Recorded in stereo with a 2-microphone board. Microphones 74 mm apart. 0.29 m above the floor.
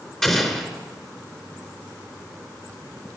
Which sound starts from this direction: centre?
An explosion, at 0.2 s.